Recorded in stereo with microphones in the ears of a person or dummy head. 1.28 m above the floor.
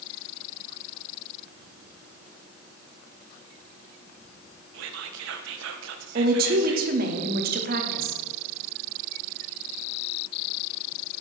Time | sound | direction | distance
4.7 | whispering | 75° right (ahead or behind) | 0.6 m
6.2 | a woman speaking | 45° right (ahead or behind) | 0.7 m